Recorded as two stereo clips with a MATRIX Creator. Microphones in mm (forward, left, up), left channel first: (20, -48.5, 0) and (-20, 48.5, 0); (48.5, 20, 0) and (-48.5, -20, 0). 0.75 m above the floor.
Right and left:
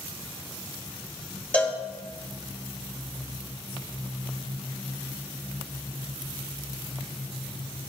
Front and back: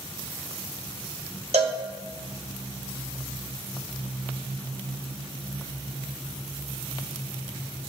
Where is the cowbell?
145° right, 1.1 m.